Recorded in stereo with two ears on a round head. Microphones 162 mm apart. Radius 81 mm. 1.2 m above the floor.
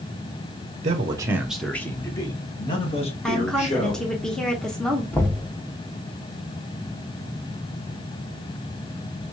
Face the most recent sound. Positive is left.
turn(degrees=10)  # may be behind; listen again after turning